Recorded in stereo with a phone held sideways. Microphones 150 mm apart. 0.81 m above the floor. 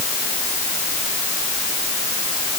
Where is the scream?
No scream in this recording.